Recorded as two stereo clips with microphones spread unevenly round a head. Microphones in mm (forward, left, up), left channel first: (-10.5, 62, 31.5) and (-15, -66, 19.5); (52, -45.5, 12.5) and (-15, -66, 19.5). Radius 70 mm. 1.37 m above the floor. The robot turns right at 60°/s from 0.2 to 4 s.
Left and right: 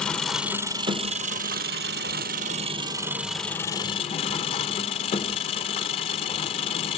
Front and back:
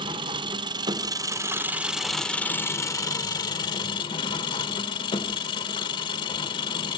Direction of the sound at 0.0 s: 170° left.